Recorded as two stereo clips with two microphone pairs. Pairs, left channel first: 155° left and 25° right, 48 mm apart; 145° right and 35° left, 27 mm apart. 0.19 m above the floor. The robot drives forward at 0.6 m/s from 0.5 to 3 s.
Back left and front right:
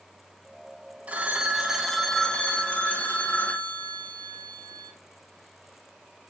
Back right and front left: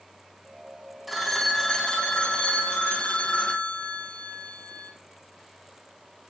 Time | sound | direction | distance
1.1 | a phone ringing | 55° right | 0.8 m